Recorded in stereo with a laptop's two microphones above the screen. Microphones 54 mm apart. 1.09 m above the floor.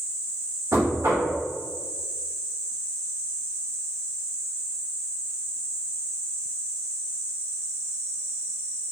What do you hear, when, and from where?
0.7 s knocking: 70° right (ahead or behind), 1.9 m